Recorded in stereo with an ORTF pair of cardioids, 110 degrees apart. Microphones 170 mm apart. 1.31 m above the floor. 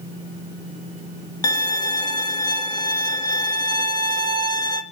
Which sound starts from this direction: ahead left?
A violin, at 1.4 s.